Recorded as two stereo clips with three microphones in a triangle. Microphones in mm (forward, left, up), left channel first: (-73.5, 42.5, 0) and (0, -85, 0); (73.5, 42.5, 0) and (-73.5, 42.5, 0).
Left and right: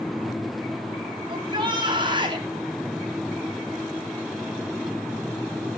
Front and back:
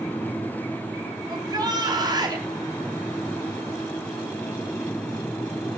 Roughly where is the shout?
Behind right.